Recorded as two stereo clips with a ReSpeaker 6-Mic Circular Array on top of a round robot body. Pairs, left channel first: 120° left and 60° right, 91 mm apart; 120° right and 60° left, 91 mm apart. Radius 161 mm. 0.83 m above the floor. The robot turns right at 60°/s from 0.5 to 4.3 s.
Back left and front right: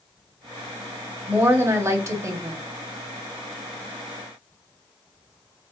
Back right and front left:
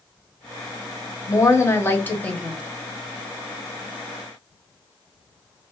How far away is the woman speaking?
About 1.0 m.